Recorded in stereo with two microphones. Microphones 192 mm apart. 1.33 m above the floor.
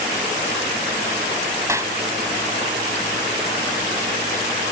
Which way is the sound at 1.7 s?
15° right (ahead or behind).